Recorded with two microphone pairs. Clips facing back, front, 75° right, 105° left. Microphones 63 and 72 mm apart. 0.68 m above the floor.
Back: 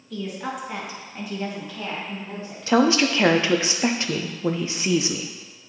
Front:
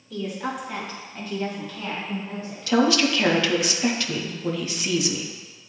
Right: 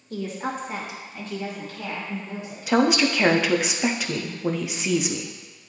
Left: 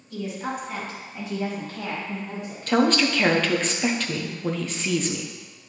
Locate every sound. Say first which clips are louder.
0.1 s a woman speaking: front 1 dB, right 1 dB; 85° right, 1.8 m; by 2.7 s 115° left, 2.5 m
2.7 s a woman speaking: back 1 dB, right 1 dB; 145° right, 0.5 m